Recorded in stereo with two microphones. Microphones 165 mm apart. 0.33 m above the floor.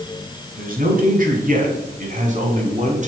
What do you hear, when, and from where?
0.6 s a man speaking: 60° right (ahead or behind), 3.5 m; by 3.1 s 45° right (ahead or behind), 4 m